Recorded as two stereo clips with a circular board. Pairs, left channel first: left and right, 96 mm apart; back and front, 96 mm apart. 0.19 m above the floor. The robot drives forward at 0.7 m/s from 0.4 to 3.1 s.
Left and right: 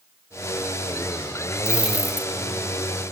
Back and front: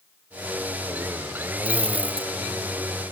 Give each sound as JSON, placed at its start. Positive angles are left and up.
{"t": 1.6, "sound": "a dropped coin", "azimuth_deg": -10}